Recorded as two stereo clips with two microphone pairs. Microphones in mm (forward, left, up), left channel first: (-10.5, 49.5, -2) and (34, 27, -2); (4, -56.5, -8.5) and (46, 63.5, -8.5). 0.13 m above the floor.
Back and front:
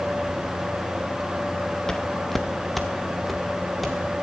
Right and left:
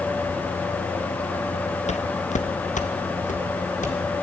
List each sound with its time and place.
1.9 s footsteps: 130° right, 0.5 m; by 4.0 s 115° right, 2.5 m